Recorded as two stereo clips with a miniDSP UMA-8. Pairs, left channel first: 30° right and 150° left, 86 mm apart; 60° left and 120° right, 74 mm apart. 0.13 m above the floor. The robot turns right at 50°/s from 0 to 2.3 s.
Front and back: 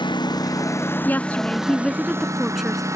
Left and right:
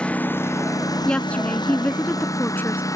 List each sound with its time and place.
0.0 s a lawn mower: 15° right; by 3.0 s 100° left
1.1 s a woman speaking: straight ahead; by 2.8 s 65° left